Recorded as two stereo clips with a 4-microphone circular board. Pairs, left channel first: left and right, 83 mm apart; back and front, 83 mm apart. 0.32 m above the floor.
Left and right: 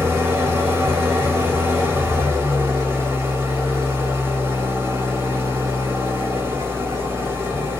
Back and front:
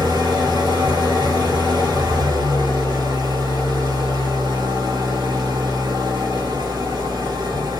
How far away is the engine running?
About 1.7 m.